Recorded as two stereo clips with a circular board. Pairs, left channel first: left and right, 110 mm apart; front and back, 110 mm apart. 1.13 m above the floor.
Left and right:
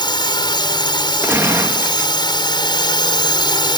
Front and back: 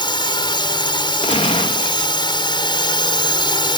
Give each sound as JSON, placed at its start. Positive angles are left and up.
{"t": 0.0, "sound": "a drone", "azimuth_deg": 45}
{"t": 1.2, "sound": "a gunshot", "azimuth_deg": -20}